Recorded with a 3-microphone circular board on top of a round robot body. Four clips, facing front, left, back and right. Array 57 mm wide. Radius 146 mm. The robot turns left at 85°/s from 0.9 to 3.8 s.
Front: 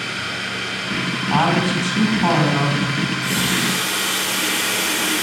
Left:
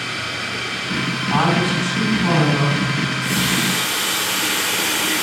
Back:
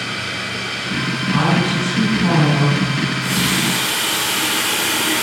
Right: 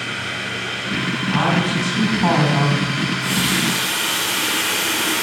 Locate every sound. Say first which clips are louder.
1.3 s a woman speaking: left 2 dB, even; 35° left, 5.5 m; by 2.9 s 105° right, 5.5 m
3.0 s a running tap: even, back 2 dB; 95° right, 4.5 m; by 5.2 s 165° right, 4.5 m